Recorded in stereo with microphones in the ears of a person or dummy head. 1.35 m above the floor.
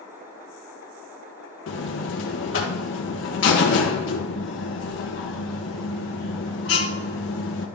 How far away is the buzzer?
About 1.4 m.